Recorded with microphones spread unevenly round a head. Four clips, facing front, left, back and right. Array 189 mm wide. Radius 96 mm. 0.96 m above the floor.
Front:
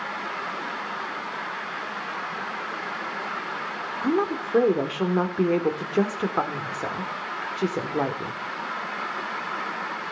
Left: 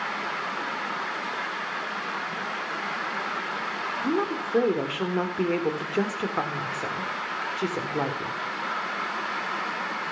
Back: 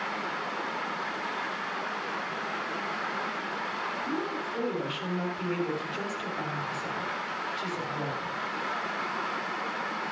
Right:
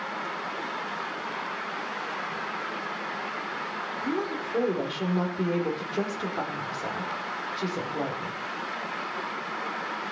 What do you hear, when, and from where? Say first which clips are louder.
4.0 s a woman speaking: left 4 dB, front 12 dB; 15° left, 3.5 m